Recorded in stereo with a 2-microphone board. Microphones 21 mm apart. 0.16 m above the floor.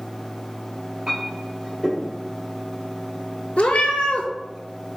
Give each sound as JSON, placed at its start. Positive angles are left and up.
{"t": 1.1, "sound": "a clink", "side_deg": -35, "distance_m": 2.0}
{"t": 3.6, "sound": "a cat meowing", "side_deg": 75, "distance_m": 0.6}